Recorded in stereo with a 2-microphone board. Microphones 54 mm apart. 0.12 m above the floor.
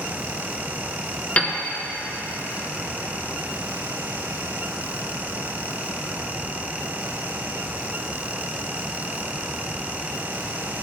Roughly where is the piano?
Left.